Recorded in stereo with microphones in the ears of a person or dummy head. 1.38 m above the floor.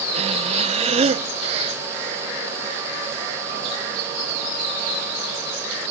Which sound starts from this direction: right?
Breathing, at 0.1 s.